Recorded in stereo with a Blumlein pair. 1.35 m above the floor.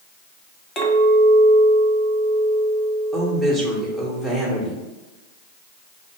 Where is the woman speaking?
10° right, 1.3 m.